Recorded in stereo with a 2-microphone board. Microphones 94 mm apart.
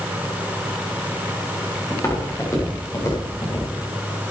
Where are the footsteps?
30° left (ahead or behind), 7.5 m; by 3.7 s 40° left (ahead or behind), 6.5 m.